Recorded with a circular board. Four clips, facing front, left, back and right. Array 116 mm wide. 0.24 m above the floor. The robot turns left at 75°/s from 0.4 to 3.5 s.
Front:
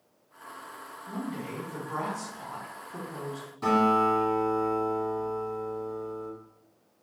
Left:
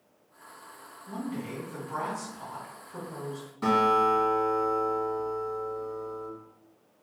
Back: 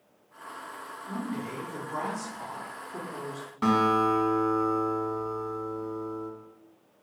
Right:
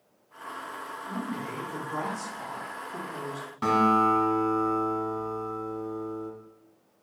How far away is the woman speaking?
About 1.9 m.